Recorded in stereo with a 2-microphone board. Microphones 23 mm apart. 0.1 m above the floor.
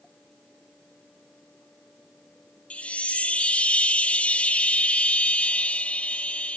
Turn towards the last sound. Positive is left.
turn(degrees=70)  # may be behind; listen again after turning